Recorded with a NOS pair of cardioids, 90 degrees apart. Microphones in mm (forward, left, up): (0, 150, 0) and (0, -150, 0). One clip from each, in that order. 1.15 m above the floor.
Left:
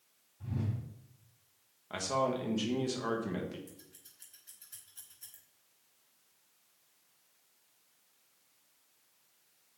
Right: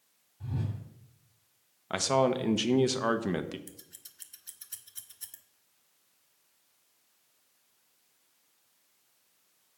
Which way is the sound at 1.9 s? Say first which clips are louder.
Right 6 dB; 50° right.